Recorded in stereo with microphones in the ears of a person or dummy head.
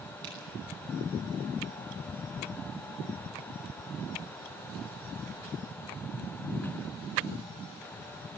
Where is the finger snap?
25° right (ahead or behind), 9.5 m.